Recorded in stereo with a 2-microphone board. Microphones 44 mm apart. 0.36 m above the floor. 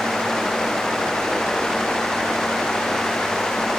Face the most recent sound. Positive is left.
No sound to turn to.